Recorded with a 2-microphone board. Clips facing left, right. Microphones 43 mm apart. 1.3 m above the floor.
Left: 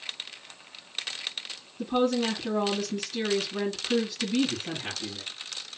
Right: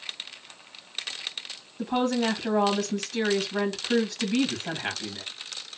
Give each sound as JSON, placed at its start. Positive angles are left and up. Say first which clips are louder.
{"t": 1.8, "sound": "a woman speaking", "louder": "even", "side_deg": -75, "distance_m": 1.9}